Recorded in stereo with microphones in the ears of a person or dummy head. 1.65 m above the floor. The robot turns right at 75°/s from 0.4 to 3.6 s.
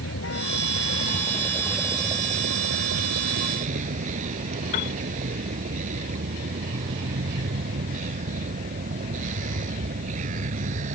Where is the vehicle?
80° left; by 10.9 s 40° right.